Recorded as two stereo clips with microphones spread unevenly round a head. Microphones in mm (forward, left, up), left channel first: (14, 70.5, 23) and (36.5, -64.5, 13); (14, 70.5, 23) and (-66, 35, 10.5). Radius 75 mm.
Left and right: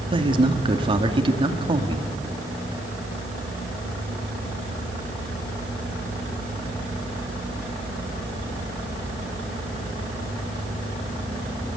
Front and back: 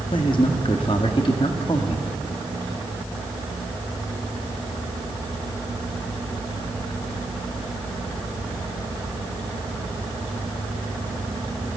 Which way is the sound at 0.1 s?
30° right.